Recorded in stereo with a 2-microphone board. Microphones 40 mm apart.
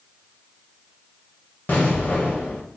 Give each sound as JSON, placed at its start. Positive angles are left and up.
{"t": 1.7, "sound": "an explosion", "side_deg": 60, "distance_m": 1.0}